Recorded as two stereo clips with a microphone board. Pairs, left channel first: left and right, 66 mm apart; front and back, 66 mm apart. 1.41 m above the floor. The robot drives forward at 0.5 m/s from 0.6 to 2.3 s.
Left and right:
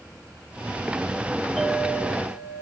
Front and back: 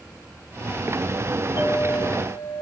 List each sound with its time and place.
1.6 s a clink: 10° left, 3 m